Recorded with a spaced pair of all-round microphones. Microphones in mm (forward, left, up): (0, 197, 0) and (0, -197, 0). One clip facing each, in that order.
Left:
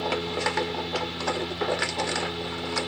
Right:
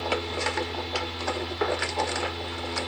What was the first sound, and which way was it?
A fan, 45° left (ahead or behind).